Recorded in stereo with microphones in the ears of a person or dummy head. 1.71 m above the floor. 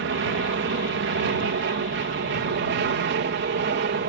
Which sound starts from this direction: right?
An aircraft, at 0.0 s.